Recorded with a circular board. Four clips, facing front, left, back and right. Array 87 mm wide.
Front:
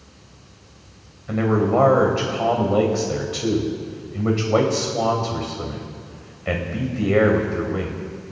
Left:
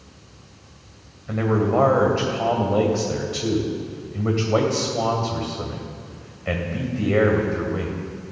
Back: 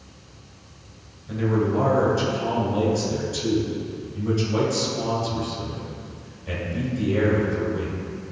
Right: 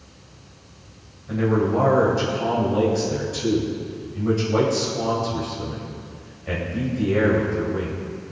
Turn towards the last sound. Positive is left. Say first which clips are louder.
# even, front 4 dB
turn(degrees=30)